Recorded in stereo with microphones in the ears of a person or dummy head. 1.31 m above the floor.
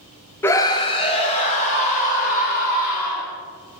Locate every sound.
0.4 s a scream: 15° left (ahead or behind), 0.7 m; by 3.3 s 45° left (ahead or behind), 3.5 m